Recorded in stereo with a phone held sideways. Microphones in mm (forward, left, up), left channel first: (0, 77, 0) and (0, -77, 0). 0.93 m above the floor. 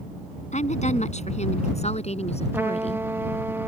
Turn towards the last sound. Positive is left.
turn(degrees=-15)  # may be behind; listen again after turning